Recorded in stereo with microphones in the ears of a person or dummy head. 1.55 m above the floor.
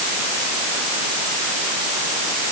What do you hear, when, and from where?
Only background noise.